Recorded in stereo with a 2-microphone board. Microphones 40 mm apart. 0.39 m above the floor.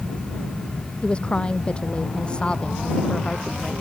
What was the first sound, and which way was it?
A woman speaking, 25° left (ahead or behind).